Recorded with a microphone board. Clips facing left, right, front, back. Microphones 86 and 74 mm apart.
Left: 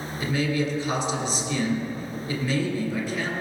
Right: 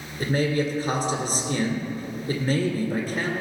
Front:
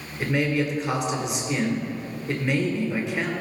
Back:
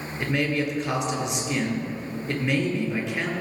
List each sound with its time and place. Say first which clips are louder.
0.2 s a man speaking: right 2 dB, front 2 dB; 85° right, 1.9 m